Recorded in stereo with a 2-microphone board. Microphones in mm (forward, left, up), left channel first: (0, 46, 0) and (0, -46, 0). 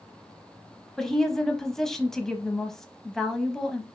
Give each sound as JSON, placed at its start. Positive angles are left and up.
{"t": 1.0, "sound": "a woman speaking", "side_deg": 5, "distance_m": 1.0}